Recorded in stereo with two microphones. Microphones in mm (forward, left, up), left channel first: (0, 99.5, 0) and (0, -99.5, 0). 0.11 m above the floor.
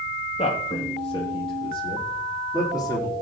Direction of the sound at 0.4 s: 35° left (ahead or behind).